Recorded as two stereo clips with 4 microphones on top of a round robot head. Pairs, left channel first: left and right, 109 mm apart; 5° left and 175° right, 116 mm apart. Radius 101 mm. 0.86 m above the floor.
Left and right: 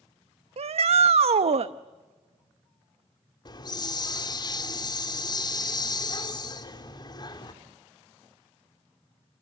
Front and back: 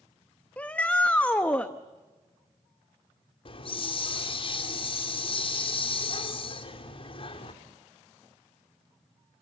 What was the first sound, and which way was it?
A shout, 75° right.